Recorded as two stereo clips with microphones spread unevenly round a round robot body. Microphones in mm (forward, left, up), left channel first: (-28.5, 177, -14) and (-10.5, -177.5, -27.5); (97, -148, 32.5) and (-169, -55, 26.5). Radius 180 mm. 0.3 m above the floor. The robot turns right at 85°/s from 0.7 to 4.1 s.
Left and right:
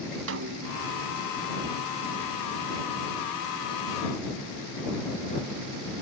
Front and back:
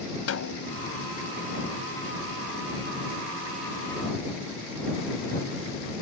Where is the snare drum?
40° right; by 0.8 s 30° right.